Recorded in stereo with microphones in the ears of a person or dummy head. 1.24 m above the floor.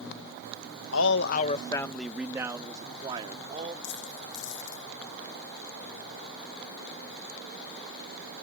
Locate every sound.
0.9 s a man speaking: 80° left; by 3.7 s 30° right (ahead or behind)
3.8 s a dropped coin: 65° left (ahead or behind)